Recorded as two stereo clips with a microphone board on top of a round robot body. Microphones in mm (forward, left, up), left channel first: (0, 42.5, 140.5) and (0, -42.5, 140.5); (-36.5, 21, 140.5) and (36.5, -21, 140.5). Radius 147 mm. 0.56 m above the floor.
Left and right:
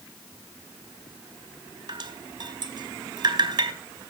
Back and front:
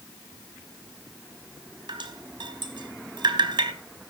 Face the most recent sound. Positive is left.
turn(degrees=-55)